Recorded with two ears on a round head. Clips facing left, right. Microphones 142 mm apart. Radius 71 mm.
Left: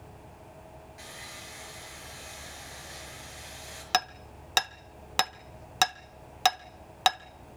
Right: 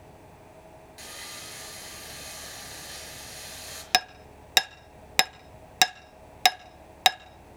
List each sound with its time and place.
1.0 s sawing: 40° right (ahead or behind), 7 m
3.9 s hammering: 20° right (ahead or behind), 0.5 m